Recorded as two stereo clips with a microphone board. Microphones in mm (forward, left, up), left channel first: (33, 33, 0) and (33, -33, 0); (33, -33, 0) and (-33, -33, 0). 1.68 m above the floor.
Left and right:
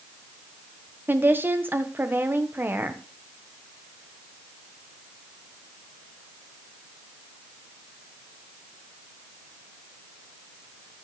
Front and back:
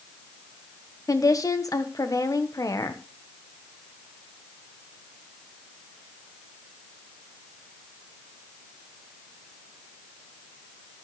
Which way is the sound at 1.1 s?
30° right.